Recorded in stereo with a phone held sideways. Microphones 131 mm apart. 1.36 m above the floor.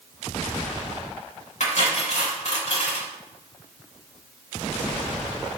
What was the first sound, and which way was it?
Cutlery clinking, 65° left (ahead or behind).